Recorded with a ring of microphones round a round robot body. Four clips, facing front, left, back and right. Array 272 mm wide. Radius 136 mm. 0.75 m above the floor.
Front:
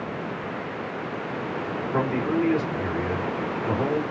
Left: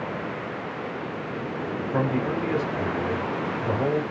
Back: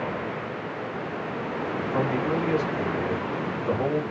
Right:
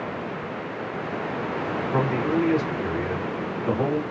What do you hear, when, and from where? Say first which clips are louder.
1.9 s a man speaking: right 2 dB, front 2 dB; 95° right, 2 m